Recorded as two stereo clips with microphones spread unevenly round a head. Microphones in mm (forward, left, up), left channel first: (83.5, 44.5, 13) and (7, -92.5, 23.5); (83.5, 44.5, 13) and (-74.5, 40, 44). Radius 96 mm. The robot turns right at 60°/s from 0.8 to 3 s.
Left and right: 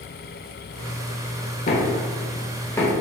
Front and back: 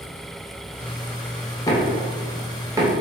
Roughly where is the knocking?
Left.